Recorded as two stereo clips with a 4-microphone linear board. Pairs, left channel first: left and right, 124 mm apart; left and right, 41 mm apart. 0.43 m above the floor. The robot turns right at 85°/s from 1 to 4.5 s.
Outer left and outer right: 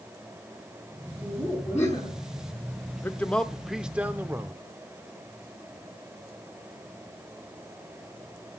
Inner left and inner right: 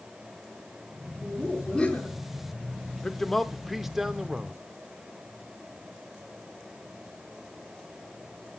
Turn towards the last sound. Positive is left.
turn(degrees=-20)  # may be behind; listen again after turning